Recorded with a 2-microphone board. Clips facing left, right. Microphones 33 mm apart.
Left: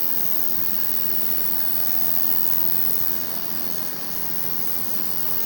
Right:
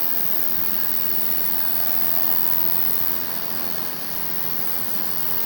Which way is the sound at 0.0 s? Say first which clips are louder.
Right 2 dB; centre (ahead or behind).